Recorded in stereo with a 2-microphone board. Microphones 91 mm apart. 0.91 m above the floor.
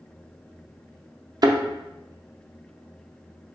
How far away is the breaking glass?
I don't hear breaking glass.